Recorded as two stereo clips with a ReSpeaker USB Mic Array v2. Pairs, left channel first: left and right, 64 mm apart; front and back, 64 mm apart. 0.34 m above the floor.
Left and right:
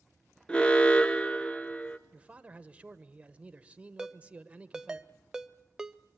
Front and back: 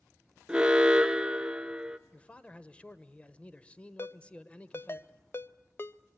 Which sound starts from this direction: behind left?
An alarm, at 0.5 s.